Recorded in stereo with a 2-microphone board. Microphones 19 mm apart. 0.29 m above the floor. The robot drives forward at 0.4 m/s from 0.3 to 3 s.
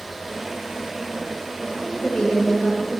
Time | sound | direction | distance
1.7 | a woman speaking | 55° left (ahead or behind) | 5 m